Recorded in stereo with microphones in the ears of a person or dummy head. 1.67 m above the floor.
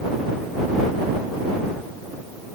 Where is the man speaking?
I don't hear a man speaking.